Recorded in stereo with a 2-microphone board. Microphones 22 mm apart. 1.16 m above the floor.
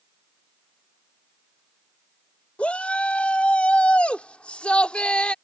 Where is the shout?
85° left; by 5.3 s 60° left (ahead or behind).